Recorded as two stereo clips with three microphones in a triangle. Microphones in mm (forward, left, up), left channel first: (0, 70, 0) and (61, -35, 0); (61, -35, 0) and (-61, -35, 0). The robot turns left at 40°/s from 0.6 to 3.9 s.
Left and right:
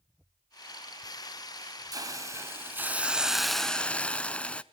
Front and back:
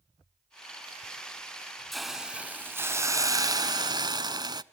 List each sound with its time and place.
1.9 s a hiss: 90° right, 0.7 m; by 4.6 s 165° right, 0.7 m